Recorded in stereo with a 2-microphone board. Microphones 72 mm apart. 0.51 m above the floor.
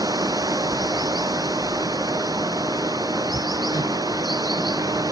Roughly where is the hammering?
Left.